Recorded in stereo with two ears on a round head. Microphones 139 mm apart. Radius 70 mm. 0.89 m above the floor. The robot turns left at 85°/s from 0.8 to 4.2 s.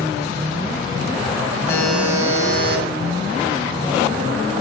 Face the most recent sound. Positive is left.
turn(degrees=165)